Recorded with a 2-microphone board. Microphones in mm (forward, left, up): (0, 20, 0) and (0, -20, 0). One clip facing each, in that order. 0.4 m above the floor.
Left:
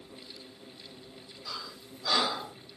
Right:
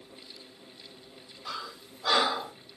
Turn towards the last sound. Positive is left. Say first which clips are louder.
# right 3 dB
turn(degrees=-45)  # may be behind; listen again after turning